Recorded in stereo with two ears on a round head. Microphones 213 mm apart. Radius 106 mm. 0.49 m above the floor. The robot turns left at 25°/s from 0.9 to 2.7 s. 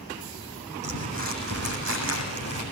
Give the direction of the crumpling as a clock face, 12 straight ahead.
1 o'clock.